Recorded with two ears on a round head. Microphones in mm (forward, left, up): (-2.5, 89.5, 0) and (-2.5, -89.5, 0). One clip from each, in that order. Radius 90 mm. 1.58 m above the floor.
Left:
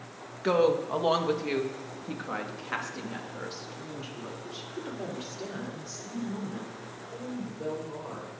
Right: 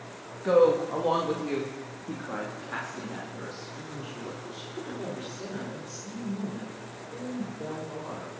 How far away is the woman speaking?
About 1.6 m.